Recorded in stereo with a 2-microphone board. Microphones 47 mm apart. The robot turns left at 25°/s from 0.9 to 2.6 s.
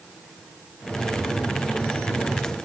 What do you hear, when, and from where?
Only background noise.